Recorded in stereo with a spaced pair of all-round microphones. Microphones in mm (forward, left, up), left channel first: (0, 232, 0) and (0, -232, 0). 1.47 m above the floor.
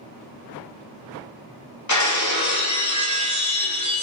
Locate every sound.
1.9 s breaking glass: 40° left (ahead or behind), 0.7 m